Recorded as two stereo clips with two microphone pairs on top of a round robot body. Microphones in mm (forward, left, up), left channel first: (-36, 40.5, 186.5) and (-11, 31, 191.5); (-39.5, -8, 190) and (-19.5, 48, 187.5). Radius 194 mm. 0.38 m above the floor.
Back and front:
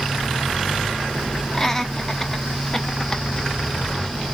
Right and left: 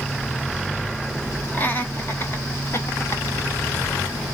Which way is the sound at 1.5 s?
160° right.